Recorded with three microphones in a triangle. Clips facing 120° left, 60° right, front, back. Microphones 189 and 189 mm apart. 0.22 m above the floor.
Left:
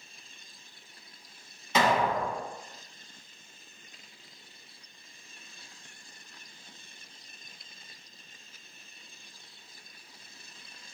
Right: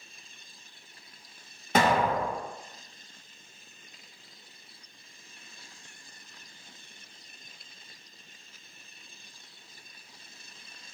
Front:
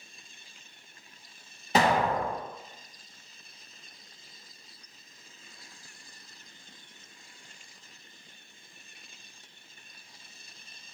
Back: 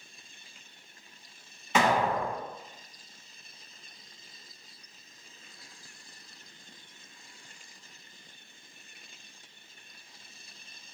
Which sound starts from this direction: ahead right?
An explosion, at 1.8 s.